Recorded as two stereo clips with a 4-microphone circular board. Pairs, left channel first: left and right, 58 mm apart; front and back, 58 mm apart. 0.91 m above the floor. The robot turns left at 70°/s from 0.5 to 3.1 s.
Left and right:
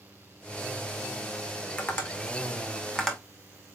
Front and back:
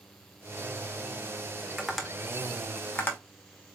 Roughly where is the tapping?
Left.